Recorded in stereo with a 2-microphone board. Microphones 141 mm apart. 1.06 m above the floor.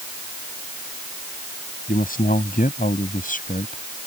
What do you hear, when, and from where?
1.9 s a man speaking: 75° left (ahead or behind); by 3.8 s 70° left (ahead or behind)